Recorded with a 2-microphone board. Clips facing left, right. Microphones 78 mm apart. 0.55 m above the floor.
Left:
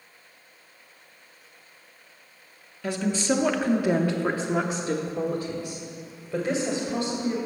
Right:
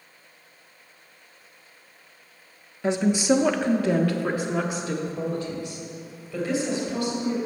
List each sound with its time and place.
2.8 s a woman speaking: 20° right (ahead or behind), 0.7 m; by 7.4 s 55° left (ahead or behind), 2 m